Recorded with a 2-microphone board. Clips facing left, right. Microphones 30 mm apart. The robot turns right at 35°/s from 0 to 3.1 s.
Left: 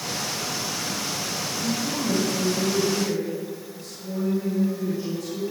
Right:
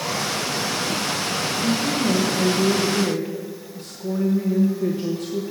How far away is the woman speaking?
About 1.8 m.